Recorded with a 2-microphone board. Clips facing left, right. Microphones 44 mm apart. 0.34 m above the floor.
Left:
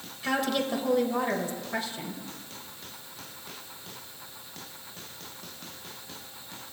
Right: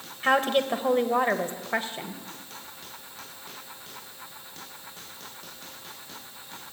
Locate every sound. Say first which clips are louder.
0.2 s a woman speaking: right 5 dB; 40° right (ahead or behind), 1.2 m